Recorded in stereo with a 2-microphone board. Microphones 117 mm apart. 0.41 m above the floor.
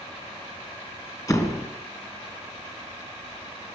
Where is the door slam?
30° left (ahead or behind), 3.5 m.